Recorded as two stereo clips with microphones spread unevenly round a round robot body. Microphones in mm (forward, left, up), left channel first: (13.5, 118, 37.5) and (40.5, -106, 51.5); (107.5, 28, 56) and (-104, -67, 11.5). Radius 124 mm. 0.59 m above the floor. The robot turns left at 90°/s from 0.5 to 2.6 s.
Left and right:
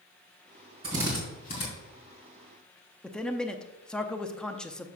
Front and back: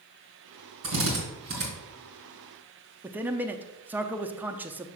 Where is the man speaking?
170° left, 0.6 m.